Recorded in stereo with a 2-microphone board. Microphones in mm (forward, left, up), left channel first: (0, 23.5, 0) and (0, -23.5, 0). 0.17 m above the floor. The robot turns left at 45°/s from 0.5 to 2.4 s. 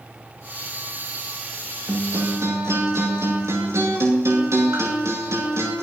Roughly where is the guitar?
Right.